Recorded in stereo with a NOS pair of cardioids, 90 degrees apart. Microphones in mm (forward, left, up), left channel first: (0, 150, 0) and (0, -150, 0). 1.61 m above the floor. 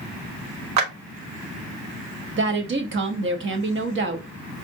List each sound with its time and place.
0.8 s a clap: 65° right, 1.1 m
2.4 s a woman speaking: 40° right, 0.9 m